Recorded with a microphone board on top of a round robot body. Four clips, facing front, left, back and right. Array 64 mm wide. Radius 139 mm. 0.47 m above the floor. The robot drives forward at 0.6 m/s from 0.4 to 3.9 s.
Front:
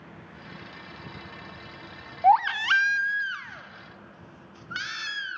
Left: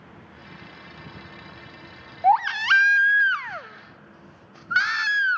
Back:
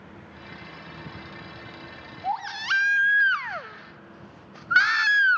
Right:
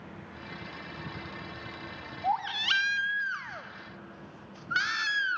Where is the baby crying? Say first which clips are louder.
Left 11 dB, front 8 dB; 45° left, 0.6 m; by 5.4 s 155° left, 0.8 m.